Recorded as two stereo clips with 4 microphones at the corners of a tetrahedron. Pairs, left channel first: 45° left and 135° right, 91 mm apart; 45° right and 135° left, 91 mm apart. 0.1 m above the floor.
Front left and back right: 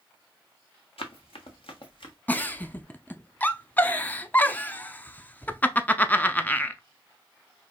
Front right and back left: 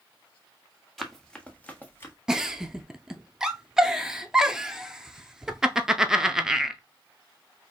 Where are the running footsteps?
45° left, 1.2 m; by 2.1 s 20° left, 1.4 m.